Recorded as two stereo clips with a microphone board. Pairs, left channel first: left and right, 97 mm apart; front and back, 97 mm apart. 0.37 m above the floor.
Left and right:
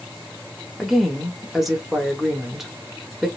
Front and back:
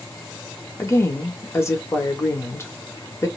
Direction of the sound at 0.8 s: 5° right.